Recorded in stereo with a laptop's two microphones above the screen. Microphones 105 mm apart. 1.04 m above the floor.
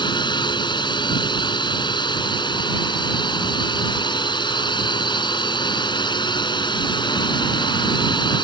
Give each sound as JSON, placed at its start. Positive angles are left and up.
{"t": 0.0, "sound": "a drone", "side_deg": 45}